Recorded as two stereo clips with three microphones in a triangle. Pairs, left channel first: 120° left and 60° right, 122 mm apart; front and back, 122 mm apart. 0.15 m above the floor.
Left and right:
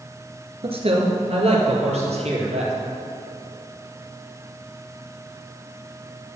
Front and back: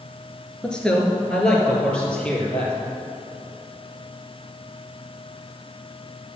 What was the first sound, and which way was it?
A man speaking, 80° right.